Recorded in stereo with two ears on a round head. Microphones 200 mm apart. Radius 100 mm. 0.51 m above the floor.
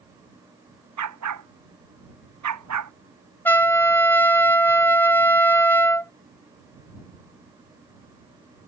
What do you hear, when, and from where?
1.0 s a dog barking: 90° right; by 2.9 s 85° right
3.5 s a trumpet: 10° left (ahead or behind)